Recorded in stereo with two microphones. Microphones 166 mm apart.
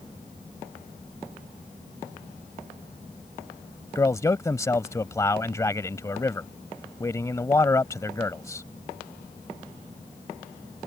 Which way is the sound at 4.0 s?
20° left (ahead or behind).